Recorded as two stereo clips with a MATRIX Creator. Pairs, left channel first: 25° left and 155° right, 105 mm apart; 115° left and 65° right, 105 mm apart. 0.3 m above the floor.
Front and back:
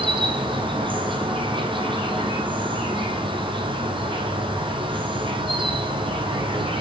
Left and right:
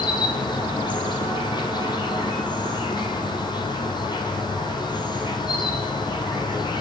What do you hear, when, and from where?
0.0 s an insect: 160° left, 3 m